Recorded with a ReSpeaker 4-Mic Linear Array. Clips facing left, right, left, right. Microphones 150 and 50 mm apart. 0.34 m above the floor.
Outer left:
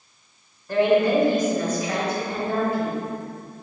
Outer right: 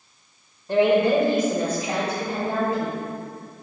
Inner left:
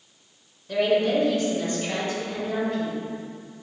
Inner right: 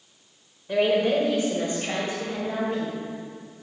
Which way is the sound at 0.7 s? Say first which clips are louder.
Even, even; 20° right (ahead or behind).